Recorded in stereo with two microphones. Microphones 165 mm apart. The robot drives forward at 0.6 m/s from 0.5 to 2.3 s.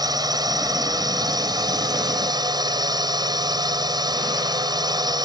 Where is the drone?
25° right (ahead or behind).